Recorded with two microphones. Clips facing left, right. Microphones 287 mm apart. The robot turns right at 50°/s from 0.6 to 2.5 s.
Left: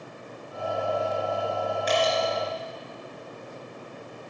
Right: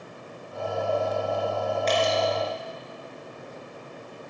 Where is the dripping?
10° left (ahead or behind), 2.5 m; by 2.1 s 5° right (ahead or behind), 2.5 m.